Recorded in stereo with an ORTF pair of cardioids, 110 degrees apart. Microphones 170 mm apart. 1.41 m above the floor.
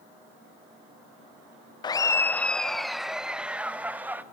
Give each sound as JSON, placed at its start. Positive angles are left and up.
{"t": 1.8, "sound": "laughter", "azimuth_deg": 25, "distance_m": 0.7}